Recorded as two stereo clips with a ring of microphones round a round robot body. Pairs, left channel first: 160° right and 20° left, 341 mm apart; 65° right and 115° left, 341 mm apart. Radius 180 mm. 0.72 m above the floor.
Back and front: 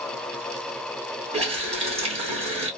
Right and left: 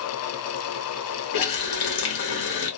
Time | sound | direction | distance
1.3 | a running tap | 50° right | 1.1 m